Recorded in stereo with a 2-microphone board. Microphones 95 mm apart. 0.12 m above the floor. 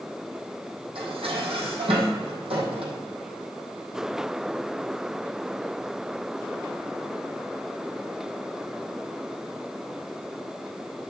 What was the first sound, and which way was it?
Dishes clattering, 75° right (ahead or behind).